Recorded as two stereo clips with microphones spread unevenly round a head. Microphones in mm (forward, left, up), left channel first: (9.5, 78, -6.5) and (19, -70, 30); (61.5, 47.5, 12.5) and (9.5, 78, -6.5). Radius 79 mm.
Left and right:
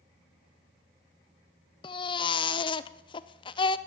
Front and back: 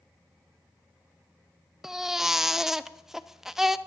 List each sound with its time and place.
1.8 s a baby crying: 35° left, 0.6 m